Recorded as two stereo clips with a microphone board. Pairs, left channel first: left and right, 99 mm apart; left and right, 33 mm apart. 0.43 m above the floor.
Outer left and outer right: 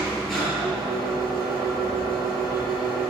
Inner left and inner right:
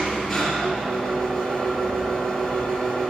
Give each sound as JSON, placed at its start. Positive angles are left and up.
{"t": 0.0, "sound": "an engine running", "side_deg": 5, "distance_m": 5.5}